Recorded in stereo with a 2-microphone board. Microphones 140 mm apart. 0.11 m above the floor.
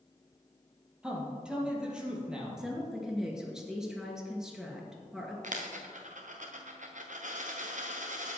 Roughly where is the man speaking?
Centre.